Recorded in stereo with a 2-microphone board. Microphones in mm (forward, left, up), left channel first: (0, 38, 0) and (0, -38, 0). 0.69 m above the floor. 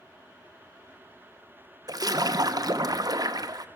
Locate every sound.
1.9 s a splash: 55° right (ahead or behind), 0.8 m